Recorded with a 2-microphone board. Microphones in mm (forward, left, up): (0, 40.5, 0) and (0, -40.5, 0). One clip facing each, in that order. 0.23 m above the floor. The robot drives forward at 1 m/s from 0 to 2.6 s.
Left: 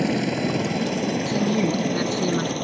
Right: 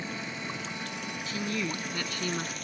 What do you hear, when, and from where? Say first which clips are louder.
0.0 s a helicopter: left 15 dB; 65° left (ahead or behind); by 2.6 s 50° left (ahead or behind)
1.3 s a woman speaking: left 9 dB; 30° left (ahead or behind); by 2.5 s 20° left (ahead or behind)